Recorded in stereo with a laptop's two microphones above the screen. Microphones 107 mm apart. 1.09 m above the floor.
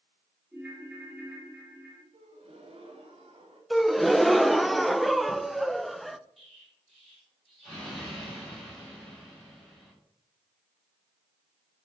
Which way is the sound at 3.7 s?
Centre (ahead or behind).